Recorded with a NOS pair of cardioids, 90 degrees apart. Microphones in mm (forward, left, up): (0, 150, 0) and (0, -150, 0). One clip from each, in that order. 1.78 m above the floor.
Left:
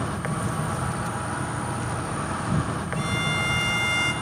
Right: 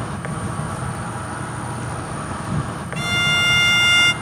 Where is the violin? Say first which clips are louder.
Right 9 dB; 40° right, 0.6 m.